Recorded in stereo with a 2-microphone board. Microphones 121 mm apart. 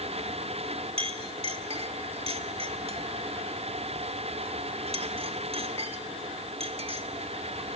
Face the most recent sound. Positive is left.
turn(degrees=-50)  # may be behind; listen again after turning